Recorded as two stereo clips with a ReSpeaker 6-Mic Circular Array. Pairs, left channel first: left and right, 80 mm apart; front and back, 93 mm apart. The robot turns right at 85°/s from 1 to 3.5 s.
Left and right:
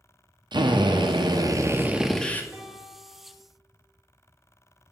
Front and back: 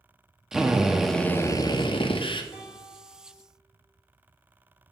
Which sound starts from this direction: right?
A drill, at 0.5 s.